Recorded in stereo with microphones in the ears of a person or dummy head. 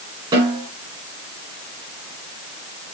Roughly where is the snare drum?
Right.